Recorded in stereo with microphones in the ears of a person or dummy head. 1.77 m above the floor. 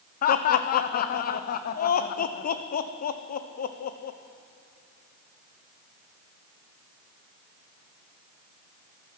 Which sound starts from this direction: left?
Laughter, at 0.2 s.